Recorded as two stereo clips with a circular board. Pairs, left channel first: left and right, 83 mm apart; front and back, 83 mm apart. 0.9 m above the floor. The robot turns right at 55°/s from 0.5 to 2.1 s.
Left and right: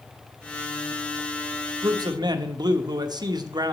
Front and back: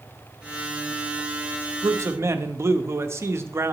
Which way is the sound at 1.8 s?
140° right.